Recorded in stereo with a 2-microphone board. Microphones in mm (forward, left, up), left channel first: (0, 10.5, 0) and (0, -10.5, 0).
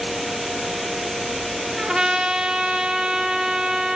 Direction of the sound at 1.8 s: 40° right (ahead or behind).